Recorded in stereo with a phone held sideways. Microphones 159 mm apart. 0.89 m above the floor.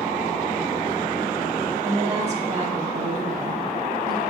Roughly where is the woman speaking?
Right.